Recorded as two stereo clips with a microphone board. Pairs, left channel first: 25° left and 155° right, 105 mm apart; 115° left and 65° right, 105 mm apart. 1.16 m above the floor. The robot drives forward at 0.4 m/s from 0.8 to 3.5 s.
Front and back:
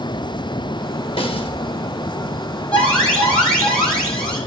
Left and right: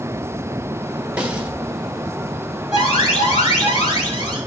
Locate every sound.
1.2 s a snare drum: 10° left, 1.3 m
2.7 s an alarm: 100° left, 5.5 m